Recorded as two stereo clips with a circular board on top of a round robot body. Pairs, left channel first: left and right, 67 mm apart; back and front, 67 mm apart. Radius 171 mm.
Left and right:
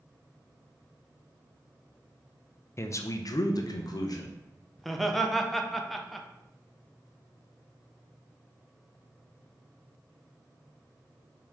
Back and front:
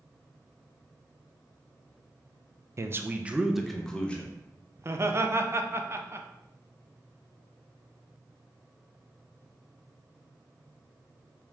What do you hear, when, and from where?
2.8 s a man speaking: 45° left, 0.7 m; by 4.3 s 110° left, 0.9 m
4.8 s laughter: 5° left, 0.8 m